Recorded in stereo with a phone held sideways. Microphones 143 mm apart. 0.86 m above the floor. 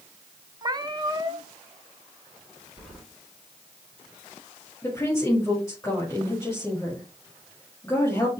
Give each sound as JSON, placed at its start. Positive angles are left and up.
{"t": 0.6, "sound": "a cat meowing", "side_deg": -30, "distance_m": 0.9}
{"t": 2.8, "sound": "keys jangling", "side_deg": 5, "distance_m": 5.0}
{"t": 4.8, "sound": "a woman speaking", "side_deg": 20, "distance_m": 4.5}